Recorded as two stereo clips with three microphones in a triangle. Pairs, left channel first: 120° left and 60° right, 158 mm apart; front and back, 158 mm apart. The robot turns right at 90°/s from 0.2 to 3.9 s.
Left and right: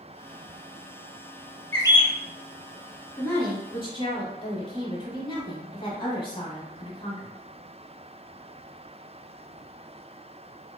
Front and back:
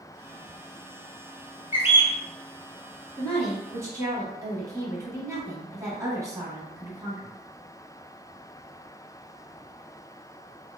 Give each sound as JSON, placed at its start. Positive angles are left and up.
{"t": 1.7, "sound": "a bird", "azimuth_deg": 40, "distance_m": 0.6}
{"t": 3.2, "sound": "a woman speaking", "azimuth_deg": 65, "distance_m": 1.1}